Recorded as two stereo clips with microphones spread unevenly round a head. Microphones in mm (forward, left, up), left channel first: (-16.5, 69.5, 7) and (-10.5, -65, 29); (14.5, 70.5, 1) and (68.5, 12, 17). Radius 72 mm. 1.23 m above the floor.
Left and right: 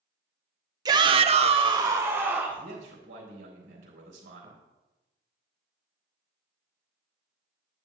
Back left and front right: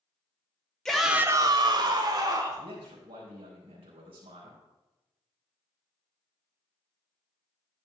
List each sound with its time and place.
0.8 s a shout: 150° right, 1.1 m; by 2.7 s 5° right, 2 m
2.6 s a man speaking: 80° right, 3.5 m